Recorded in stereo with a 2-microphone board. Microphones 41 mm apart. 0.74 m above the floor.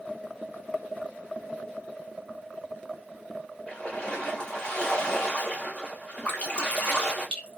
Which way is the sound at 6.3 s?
30° left (ahead or behind).